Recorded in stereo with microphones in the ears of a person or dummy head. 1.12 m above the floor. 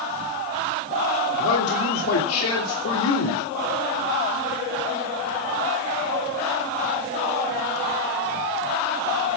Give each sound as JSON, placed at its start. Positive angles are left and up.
{"t": 1.4, "sound": "a man speaking", "side_deg": 85, "distance_m": 3.0}